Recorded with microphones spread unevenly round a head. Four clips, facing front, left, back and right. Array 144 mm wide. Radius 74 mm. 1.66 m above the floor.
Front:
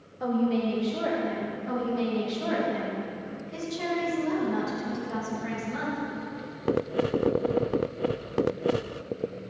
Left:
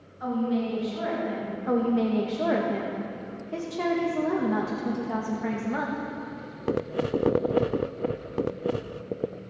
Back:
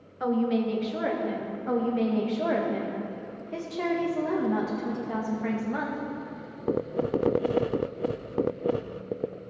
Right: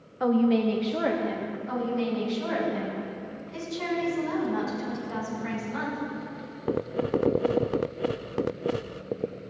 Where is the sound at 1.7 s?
115° left, 1.8 m.